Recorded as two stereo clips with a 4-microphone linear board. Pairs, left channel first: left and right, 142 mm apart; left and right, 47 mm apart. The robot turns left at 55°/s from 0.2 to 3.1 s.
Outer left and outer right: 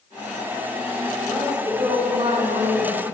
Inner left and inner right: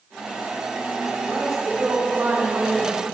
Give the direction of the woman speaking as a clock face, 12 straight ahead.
12 o'clock.